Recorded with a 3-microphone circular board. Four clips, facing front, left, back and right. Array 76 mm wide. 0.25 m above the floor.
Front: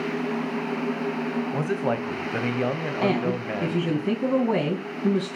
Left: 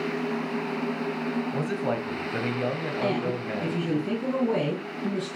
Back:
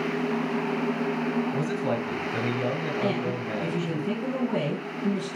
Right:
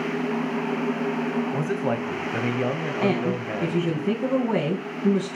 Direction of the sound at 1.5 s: 20° right.